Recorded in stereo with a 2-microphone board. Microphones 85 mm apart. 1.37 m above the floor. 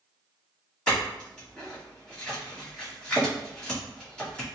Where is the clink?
15° left (ahead or behind), 1.5 m.